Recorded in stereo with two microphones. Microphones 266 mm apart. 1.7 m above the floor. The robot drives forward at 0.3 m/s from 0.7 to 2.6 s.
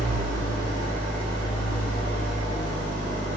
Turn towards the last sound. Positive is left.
turn(degrees=5)  # may be behind; listen again after turning